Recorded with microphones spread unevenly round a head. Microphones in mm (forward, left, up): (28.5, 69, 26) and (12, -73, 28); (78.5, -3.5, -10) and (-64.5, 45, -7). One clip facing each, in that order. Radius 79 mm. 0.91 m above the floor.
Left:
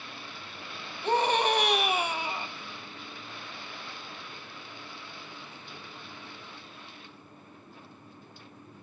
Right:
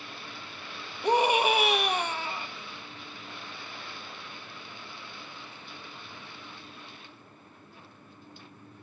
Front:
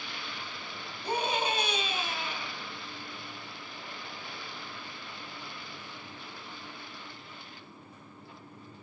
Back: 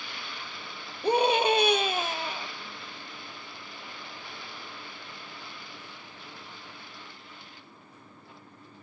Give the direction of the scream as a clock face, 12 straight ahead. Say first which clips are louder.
Right 2 dB, back 8 dB; 6 o'clock.